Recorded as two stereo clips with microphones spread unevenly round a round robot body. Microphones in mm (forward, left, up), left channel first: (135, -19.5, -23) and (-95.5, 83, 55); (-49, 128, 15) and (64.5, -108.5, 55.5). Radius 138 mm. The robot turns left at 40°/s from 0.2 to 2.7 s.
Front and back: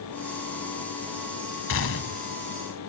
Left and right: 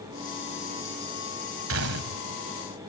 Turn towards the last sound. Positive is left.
turn(degrees=-65)